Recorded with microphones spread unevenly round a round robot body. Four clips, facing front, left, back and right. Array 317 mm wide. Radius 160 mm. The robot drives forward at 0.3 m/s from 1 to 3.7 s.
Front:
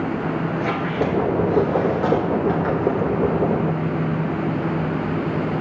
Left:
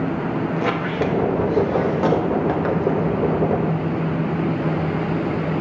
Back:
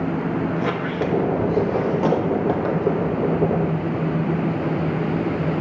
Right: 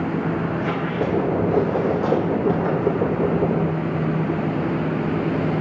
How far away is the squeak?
About 0.9 m.